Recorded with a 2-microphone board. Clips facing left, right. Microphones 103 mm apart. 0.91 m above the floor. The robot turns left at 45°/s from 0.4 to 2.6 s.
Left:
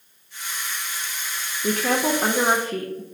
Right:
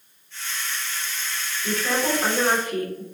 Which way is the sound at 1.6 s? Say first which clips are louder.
Left 3 dB; 70° left.